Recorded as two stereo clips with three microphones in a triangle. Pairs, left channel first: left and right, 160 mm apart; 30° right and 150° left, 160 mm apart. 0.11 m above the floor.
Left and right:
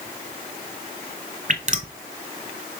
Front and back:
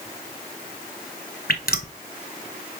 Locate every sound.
1.5 s dripping: 50° right, 0.7 m